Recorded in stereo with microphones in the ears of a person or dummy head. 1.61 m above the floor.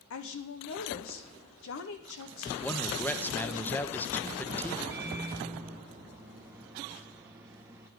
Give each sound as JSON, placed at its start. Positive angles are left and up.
{"t": 0.1, "sound": "a woman speaking", "side_deg": 70, "distance_m": 1.2}
{"t": 2.6, "sound": "a man speaking", "side_deg": 5, "distance_m": 1.0}
{"t": 4.9, "sound": "a microwave", "side_deg": -10, "distance_m": 0.8}